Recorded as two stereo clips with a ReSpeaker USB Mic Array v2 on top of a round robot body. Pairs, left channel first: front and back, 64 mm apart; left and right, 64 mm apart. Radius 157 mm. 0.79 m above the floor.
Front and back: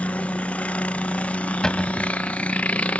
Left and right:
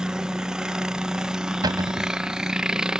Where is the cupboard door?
80° right.